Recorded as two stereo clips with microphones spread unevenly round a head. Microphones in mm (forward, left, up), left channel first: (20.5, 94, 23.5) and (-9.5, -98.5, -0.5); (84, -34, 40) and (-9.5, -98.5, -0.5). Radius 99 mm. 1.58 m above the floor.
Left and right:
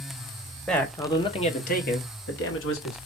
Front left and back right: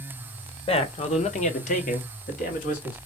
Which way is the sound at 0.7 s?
5° right.